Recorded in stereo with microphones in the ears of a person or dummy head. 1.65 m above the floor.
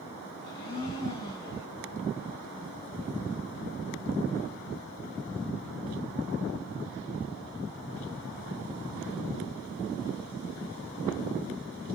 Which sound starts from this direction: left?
A blender, at 0.4 s.